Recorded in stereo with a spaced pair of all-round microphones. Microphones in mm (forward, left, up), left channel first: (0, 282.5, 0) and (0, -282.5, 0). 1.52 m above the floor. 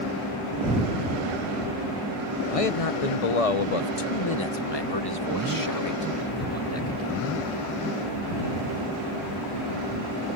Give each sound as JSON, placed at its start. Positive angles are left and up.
{"t": 2.5, "sound": "a man speaking", "side_deg": 70}